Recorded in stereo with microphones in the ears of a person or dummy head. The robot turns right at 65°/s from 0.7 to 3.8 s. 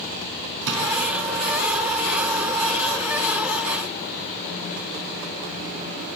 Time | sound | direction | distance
0.7 | a drawer | 70° right (ahead or behind) | 4.5 m